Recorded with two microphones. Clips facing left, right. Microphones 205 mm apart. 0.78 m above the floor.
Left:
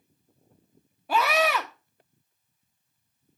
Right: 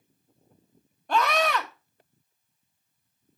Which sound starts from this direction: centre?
A scream, at 1.1 s.